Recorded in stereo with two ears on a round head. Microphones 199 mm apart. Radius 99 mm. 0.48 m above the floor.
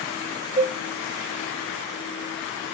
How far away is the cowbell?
About 1.3 m.